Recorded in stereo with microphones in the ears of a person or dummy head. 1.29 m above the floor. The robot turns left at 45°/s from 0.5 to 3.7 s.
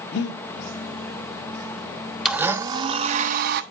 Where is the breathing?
65° left (ahead or behind), 1.3 m.